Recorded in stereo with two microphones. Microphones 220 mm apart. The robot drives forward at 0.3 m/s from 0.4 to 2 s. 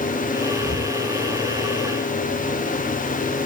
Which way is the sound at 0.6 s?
70° right (ahead or behind).